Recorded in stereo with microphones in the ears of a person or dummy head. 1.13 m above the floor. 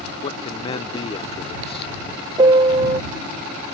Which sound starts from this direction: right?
A piano, at 2.4 s.